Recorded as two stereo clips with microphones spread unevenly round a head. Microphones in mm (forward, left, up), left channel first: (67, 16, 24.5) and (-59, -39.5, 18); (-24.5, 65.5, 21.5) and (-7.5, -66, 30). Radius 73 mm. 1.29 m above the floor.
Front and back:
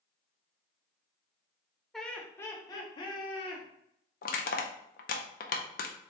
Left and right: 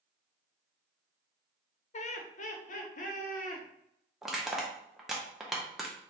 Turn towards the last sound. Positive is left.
turn(degrees=5)